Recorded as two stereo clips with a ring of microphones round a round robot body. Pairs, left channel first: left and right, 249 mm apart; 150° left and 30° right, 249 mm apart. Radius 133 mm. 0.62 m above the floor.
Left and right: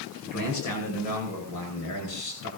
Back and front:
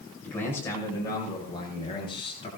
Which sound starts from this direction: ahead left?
A man speaking, at 0.2 s.